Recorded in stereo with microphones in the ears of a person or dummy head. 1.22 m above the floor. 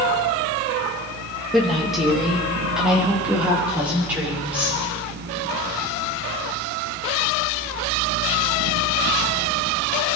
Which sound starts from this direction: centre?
A woman speaking, at 1.5 s.